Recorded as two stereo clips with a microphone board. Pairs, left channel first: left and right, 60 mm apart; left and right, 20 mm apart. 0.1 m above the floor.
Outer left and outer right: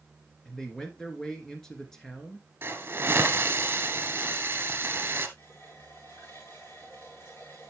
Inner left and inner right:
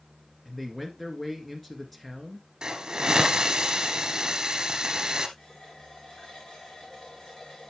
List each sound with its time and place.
0.5 s a man speaking: 10° left (ahead or behind), 1.6 m
2.6 s a hiss: 35° right (ahead or behind), 1.7 m
5.4 s a running tap: 40° left (ahead or behind), 6.5 m